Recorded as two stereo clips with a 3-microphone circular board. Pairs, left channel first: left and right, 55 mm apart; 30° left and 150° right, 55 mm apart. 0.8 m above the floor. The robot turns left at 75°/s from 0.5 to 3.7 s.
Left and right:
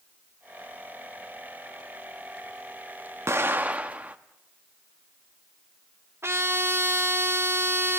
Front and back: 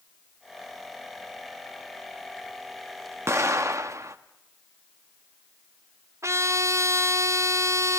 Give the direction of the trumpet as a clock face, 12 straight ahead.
4 o'clock.